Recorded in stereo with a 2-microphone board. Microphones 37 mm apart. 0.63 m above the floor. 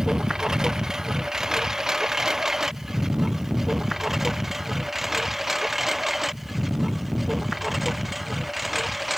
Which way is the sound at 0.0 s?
15° right (ahead or behind).